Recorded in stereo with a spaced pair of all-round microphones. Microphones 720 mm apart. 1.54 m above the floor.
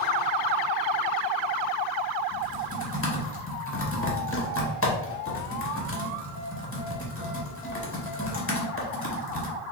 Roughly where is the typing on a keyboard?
Centre.